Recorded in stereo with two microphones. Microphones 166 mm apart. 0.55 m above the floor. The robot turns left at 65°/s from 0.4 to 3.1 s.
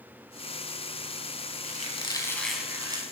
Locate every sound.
1.6 s a squeak: 55° left, 1.0 m; by 3.0 s 30° right, 1.0 m